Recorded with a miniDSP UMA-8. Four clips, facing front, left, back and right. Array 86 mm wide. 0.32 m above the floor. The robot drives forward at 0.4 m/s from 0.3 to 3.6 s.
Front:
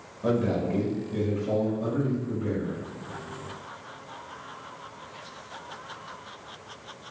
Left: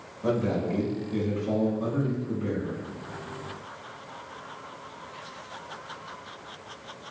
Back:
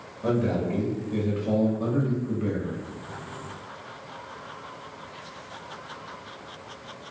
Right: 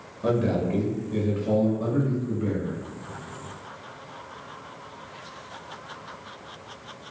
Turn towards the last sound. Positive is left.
turn(degrees=-165)